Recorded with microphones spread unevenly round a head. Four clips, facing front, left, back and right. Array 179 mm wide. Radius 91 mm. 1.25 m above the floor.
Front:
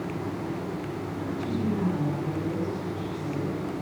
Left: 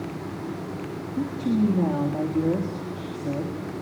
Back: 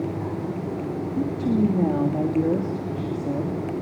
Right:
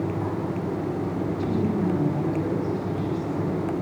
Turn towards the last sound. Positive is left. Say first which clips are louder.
# left 5 dB, back 9 dB
turn(degrees=140)